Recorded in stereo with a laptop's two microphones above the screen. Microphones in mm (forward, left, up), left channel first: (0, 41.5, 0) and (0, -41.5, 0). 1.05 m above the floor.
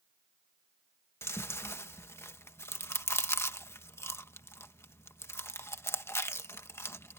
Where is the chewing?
30° left (ahead or behind).